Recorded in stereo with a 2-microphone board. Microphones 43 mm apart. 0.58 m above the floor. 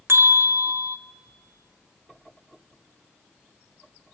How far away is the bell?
About 1.6 m.